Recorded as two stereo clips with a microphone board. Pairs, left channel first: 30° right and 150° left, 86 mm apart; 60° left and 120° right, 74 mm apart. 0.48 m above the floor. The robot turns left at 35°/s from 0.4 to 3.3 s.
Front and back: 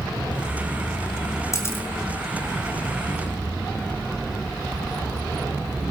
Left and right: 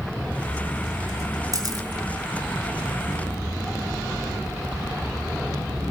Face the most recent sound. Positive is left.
turn(degrees=-145)